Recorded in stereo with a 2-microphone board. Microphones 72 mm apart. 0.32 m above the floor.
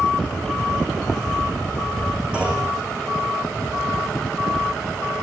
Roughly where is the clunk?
Centre.